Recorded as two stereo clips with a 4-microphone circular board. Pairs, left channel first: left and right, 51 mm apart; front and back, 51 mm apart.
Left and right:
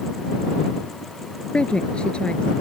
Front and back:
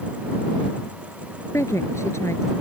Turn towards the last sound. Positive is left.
turn(degrees=20)